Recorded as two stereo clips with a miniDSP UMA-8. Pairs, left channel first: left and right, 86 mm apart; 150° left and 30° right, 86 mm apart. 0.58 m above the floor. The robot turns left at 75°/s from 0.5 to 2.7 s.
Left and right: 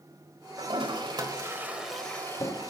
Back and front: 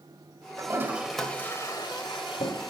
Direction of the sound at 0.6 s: 80° right.